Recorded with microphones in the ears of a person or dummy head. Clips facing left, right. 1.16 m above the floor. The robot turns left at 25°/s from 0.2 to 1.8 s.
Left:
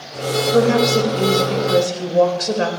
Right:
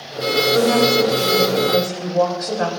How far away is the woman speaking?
About 4 m.